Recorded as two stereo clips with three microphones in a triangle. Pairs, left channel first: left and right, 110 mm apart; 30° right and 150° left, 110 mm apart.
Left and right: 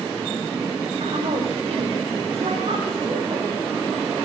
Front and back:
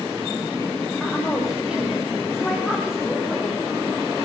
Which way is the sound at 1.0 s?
120° right.